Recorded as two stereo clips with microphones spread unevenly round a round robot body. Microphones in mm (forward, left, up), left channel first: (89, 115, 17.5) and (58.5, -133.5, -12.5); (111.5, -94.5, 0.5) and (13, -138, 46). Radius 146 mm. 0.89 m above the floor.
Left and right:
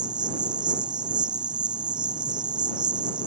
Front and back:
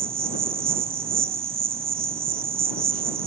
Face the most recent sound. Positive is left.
turn(degrees=-175)